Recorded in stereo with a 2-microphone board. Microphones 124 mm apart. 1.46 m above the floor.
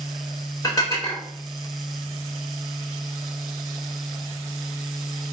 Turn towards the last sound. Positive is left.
turn(degrees=30)  # may be behind; listen again after turning